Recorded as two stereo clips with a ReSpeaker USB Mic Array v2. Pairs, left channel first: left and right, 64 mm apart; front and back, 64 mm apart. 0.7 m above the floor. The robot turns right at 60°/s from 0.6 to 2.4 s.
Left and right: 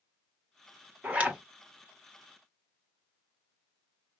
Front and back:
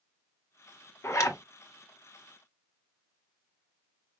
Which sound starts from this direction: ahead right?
A zipper, at 1.0 s.